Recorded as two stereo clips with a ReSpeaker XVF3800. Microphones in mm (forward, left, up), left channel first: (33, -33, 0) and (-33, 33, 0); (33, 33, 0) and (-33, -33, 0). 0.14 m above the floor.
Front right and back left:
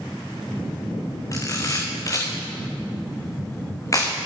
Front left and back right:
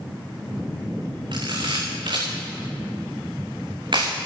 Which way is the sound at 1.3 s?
100° right.